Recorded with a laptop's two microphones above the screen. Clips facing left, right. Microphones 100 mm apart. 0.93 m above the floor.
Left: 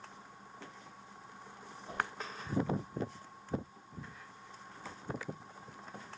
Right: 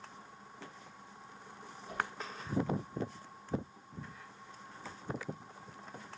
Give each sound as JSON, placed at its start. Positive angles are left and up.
{"t": 1.9, "sound": "a whoosh", "side_deg": 30, "distance_m": 7.0}